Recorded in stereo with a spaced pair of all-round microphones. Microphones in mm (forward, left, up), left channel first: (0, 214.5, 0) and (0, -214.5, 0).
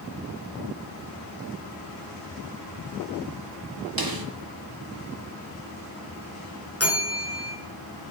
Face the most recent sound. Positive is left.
turn(degrees=35)  # may be behind; listen again after turning